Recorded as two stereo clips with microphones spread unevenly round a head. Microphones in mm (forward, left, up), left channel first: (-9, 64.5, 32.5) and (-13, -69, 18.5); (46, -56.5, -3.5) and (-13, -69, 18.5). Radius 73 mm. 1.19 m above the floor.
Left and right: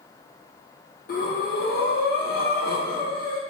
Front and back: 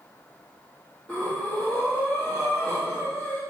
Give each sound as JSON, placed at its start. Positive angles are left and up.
{"t": 1.1, "sound": "breathing", "azimuth_deg": 80, "distance_m": 1.6}